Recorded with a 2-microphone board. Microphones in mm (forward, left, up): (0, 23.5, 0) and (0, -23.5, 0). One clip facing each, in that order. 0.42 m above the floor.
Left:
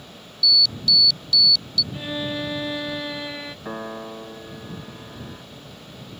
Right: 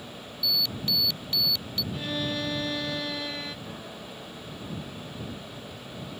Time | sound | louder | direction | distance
0.4 | an alarm | left 9 dB | 30° right (ahead or behind) | ?
1.9 | a violin | right 1 dB | 15° left (ahead or behind) | ?
3.6 | a piano | left 8 dB | 50° left (ahead or behind) | ?